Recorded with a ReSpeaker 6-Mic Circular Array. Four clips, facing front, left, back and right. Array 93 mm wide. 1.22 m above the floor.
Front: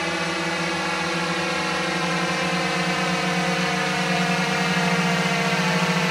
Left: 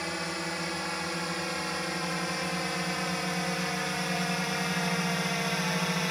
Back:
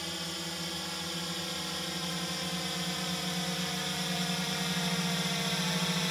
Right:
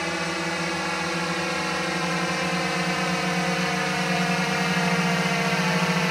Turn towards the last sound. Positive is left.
turn(degrees=-30)